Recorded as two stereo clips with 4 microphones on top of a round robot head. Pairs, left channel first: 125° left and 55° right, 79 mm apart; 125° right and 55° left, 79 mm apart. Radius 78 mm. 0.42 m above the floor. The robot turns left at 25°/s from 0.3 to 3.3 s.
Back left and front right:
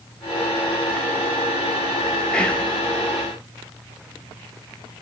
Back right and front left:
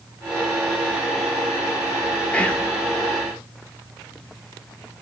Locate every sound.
2.3 s whispering: 175° right, 1.0 m; by 2.7 s 175° left, 1.0 m